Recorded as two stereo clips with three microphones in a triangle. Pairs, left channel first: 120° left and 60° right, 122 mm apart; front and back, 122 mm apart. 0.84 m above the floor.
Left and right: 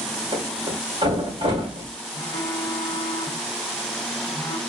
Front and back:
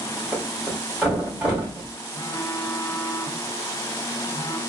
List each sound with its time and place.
0.3 s a thud: 100° right, 2.5 m
2.1 s a phone buzzing: 65° left, 0.7 m